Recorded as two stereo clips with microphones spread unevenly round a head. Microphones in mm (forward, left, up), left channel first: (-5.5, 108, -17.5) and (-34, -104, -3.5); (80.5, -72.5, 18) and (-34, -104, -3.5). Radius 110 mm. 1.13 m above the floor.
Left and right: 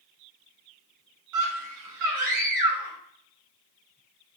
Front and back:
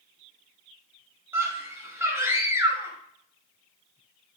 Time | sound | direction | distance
1.3 | a scream | 95° right | 5.5 m